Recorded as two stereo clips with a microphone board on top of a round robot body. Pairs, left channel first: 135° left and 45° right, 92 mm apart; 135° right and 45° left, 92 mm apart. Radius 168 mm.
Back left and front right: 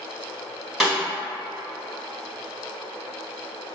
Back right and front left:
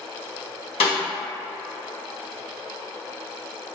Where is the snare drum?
135° right, 1.3 m.